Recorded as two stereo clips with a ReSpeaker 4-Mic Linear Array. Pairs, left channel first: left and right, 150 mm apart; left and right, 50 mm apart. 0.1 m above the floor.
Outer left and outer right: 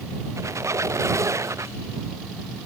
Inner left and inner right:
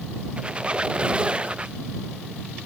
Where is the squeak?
20° right (ahead or behind).